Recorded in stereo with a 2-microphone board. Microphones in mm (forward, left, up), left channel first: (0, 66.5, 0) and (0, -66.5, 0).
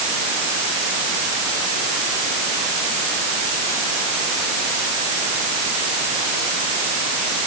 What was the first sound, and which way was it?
Only background noise.